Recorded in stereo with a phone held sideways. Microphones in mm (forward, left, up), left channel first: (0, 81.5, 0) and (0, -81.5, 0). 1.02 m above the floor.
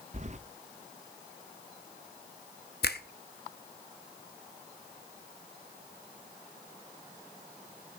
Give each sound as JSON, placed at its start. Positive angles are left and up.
{"t": 0.1, "sound": "keys jangling", "side_deg": -45, "distance_m": 0.6}
{"t": 2.8, "sound": "a finger snap", "side_deg": 80, "distance_m": 1.0}